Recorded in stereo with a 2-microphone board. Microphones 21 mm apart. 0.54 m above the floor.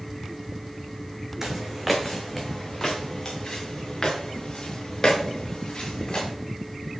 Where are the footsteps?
15° right (ahead or behind), 1.7 m; by 6.3 s 30° left (ahead or behind), 5.5 m.